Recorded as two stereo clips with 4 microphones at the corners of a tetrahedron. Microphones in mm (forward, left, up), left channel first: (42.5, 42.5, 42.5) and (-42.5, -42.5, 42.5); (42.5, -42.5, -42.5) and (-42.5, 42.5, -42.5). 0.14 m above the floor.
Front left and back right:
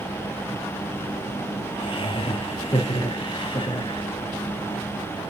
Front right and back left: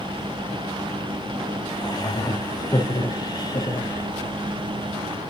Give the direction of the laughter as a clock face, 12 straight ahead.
12 o'clock.